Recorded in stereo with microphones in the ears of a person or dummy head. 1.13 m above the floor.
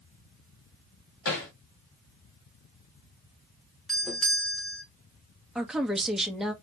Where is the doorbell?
Centre (ahead or behind), 0.9 m.